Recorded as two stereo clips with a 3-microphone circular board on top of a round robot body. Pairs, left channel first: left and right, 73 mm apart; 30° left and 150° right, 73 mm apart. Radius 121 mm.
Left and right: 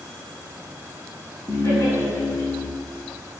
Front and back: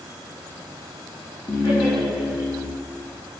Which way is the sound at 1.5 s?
50° left.